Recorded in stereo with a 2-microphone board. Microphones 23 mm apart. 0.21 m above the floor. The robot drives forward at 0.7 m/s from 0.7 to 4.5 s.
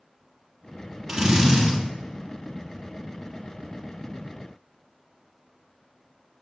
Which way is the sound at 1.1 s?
20° right (ahead or behind).